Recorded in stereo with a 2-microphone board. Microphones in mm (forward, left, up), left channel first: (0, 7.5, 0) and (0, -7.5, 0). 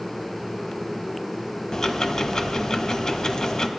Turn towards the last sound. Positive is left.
turn(degrees=40)  # may be behind; listen again after turning